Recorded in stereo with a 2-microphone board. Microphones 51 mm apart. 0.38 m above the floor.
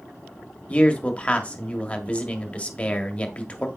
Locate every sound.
0.7 s a man speaking: 25° left (ahead or behind), 1.5 m